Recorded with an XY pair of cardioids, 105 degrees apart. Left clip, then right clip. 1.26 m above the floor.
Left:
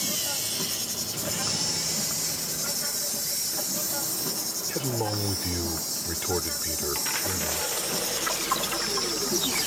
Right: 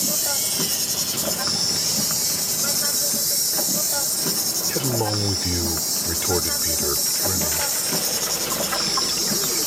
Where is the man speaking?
30° right.